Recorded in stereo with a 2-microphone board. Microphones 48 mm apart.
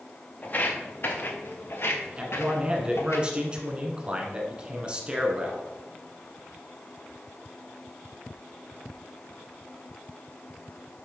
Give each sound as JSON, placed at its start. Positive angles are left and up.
{"t": 0.4, "sound": "footsteps", "side_deg": 35, "distance_m": 2.0}
{"t": 2.2, "sound": "a man speaking", "side_deg": -25, "distance_m": 1.5}